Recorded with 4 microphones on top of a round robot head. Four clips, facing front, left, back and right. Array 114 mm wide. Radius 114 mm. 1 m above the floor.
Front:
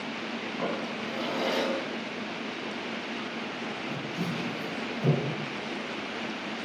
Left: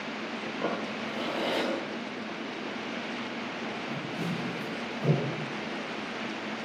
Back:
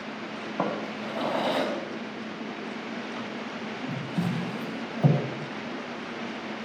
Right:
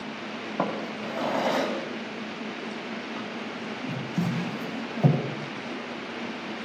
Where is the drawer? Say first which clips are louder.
Right 4 dB, back 4 dB; 125° right, 4 m.